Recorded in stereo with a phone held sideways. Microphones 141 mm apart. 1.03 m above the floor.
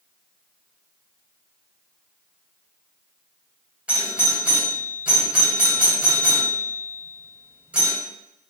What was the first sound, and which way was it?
A doorbell, 10° right (ahead or behind).